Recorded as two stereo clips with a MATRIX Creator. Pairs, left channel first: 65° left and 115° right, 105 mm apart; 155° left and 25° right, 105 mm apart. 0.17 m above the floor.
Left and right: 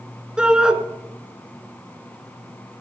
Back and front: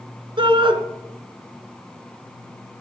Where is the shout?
35° right, 1.9 m.